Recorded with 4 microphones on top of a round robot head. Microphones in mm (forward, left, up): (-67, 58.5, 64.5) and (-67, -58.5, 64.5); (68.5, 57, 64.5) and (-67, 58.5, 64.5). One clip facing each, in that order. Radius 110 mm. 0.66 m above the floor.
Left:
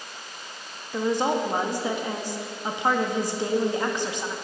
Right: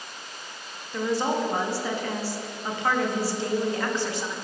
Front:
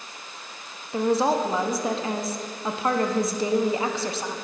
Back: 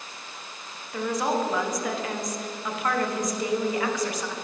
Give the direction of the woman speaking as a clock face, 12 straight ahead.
11 o'clock.